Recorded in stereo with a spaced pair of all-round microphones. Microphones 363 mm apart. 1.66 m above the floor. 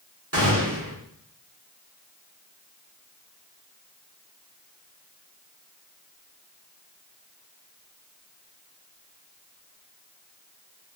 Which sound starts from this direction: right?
A gunshot, at 0.3 s.